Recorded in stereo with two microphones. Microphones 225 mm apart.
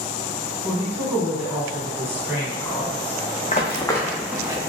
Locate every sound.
0.6 s a woman speaking: 10° right (ahead or behind), 1.2 m
3.5 s running footsteps: 35° left (ahead or behind), 0.6 m; by 4.7 s 20° right (ahead or behind), 0.8 m